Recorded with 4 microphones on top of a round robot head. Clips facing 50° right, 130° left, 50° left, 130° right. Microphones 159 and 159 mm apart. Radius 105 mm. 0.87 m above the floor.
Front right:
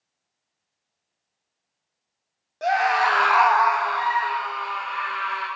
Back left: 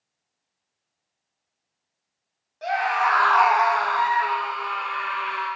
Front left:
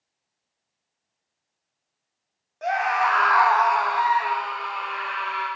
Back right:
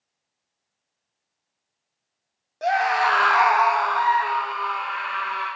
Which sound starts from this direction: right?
A scream, at 2.6 s.